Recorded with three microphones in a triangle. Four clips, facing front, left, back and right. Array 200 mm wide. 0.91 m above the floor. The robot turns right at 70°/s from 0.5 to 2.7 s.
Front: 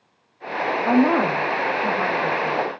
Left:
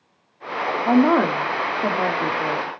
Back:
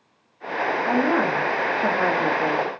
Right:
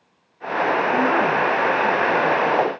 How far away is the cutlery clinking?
I don't hear cutlery clinking.